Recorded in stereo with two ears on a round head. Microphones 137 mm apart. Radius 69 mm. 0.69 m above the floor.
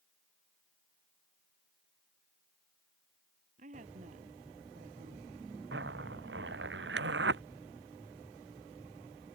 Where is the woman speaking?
50° right (ahead or behind).